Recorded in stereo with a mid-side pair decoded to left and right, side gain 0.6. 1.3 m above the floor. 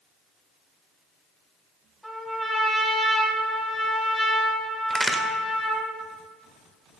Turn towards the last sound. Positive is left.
turn(degrees=-15)